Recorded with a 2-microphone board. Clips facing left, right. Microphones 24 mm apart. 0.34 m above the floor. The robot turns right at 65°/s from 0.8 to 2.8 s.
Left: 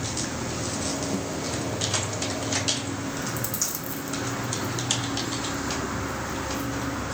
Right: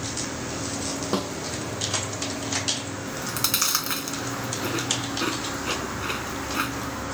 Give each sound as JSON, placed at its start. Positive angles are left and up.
{"t": 1.1, "sound": "a snare drum", "side_deg": -65}
{"t": 3.1, "sound": "chewing", "side_deg": -75}